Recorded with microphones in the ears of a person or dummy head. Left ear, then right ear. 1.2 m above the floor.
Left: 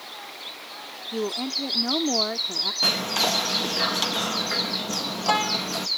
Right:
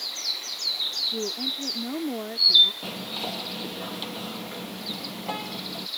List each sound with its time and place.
1.1 s a woman speaking: 40° left (ahead or behind)
2.8 s whispering: 55° left (ahead or behind)